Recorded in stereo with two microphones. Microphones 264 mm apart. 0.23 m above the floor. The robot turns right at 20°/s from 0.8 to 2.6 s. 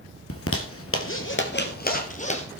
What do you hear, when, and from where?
0.3 s a zipper: 55° left (ahead or behind), 1.8 m; by 2.5 s 25° left (ahead or behind), 1.8 m